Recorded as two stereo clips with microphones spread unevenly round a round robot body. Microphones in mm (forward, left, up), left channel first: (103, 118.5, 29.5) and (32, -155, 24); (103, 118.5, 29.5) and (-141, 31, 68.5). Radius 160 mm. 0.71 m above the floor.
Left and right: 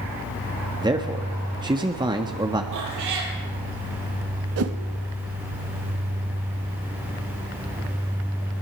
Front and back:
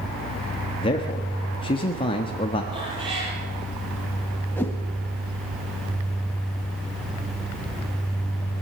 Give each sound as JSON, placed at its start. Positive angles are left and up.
{"t": 0.8, "sound": "a man speaking", "azimuth_deg": -35, "distance_m": 1.6}
{"t": 2.7, "sound": "a cat meowing", "azimuth_deg": -85, "distance_m": 5.0}
{"t": 4.6, "sound": "a whoosh", "azimuth_deg": -65, "distance_m": 1.4}